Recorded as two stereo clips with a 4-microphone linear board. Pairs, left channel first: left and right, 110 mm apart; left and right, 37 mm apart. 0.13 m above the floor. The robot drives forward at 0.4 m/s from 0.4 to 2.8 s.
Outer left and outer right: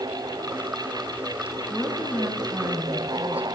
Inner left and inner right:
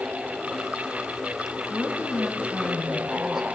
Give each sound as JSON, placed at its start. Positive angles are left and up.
{"t": 1.7, "sound": "a woman speaking", "side_deg": -20, "distance_m": 1.3}